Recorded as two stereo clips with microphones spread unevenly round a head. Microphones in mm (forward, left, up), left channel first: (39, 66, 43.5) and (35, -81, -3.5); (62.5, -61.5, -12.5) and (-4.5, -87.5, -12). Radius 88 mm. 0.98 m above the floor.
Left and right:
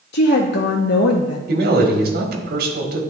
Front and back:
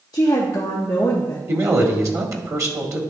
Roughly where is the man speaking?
Right.